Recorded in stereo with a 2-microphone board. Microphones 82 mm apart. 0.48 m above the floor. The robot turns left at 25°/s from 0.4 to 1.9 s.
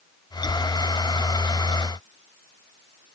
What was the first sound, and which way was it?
Only background noise.